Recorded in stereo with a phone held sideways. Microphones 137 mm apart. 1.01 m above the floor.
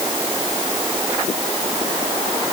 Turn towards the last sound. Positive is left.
No sound to turn to.